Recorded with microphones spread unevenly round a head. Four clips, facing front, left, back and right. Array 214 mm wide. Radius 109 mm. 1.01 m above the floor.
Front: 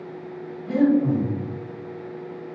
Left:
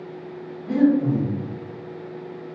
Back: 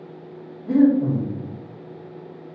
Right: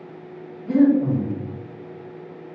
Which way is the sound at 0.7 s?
160° right.